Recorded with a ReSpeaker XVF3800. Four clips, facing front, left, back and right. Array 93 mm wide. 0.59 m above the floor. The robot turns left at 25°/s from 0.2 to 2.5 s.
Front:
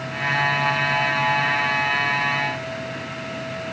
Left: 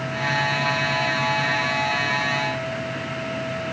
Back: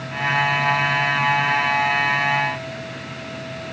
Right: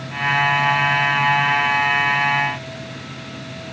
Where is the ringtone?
No ringtone in this recording.